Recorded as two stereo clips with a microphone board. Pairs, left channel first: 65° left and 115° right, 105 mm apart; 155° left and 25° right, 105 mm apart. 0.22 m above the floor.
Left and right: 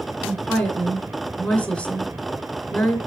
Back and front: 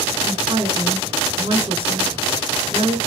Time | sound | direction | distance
0.2 | a woman speaking | 10° right | 2.5 m